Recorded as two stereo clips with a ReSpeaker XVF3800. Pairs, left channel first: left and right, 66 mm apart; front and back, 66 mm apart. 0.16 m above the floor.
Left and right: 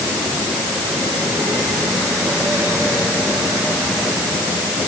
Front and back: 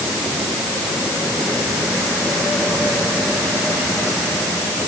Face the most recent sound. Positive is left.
No sound to turn to.